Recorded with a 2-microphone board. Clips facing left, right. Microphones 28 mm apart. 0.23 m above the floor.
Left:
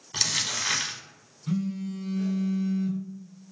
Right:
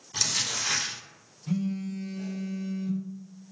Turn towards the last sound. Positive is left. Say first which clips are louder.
# even
turn(degrees=40)  # may be behind; listen again after turning